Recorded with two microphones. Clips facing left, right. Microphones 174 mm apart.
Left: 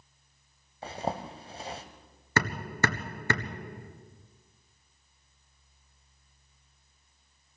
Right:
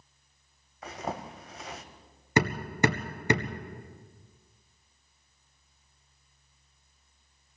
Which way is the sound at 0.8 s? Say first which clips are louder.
Left 2 dB; 30° left (ahead or behind).